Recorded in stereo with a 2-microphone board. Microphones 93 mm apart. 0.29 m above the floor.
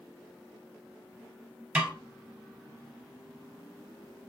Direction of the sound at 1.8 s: 15° right (ahead or behind).